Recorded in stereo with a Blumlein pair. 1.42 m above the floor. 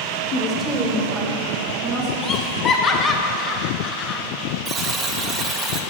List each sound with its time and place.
0.3 s a woman speaking: 35° left, 0.6 m; by 2.1 s 20° right, 2 m
2.2 s laughter: 20° left, 0.5 m
4.7 s a buzzer: 25° right, 0.5 m